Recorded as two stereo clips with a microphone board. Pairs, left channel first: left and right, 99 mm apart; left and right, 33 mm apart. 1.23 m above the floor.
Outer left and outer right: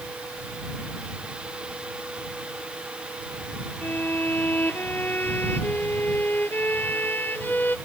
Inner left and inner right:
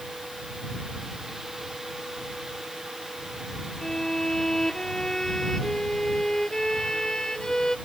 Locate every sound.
3.8 s a violin: 20° left (ahead or behind)